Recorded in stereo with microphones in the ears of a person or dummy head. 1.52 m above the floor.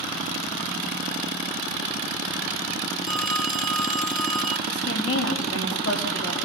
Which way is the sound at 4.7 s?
80° left.